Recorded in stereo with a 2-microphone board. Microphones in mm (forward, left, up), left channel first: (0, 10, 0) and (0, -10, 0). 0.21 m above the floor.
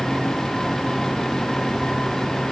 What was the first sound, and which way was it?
Only background noise.